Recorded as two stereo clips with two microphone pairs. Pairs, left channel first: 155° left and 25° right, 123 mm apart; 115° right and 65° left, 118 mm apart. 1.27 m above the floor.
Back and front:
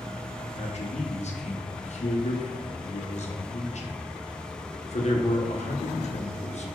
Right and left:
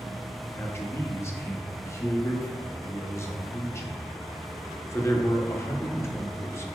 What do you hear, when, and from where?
0.6 s a man speaking: straight behind, 0.7 m